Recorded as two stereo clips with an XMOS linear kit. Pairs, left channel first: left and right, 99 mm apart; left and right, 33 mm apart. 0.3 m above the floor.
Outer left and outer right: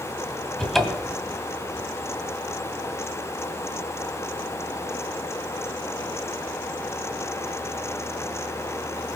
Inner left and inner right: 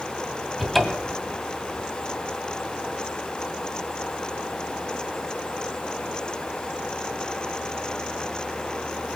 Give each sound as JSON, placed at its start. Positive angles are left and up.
{"t": 0.6, "sound": "a cupboard door", "side_deg": 5, "distance_m": 2.0}